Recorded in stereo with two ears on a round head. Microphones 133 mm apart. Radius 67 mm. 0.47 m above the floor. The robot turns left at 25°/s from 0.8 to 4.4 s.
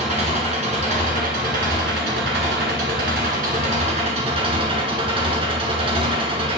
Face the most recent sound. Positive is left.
turn(degrees=-140)